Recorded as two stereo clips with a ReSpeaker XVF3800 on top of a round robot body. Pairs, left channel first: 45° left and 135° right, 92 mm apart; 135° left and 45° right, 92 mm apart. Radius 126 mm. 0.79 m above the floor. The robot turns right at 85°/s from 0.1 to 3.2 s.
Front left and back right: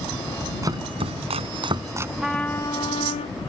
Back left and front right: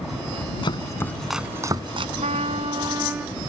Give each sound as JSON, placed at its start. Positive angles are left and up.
{"t": 0.6, "sound": "chopping", "azimuth_deg": 170}
{"t": 2.2, "sound": "a trumpet", "azimuth_deg": -55}